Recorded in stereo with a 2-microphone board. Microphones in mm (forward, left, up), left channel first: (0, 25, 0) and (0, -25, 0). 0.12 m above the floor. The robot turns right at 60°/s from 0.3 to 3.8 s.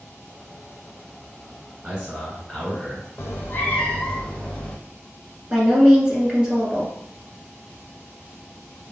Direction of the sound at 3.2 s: 120° left.